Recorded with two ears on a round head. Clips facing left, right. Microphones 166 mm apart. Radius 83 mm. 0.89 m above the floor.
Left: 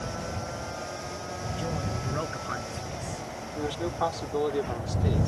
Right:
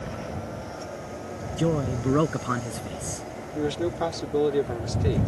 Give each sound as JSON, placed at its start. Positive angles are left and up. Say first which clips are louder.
{"t": 1.6, "sound": "a man speaking", "louder": "right 10 dB", "side_deg": -60}
{"t": 3.5, "sound": "a man speaking", "louder": "right 4 dB", "side_deg": -30}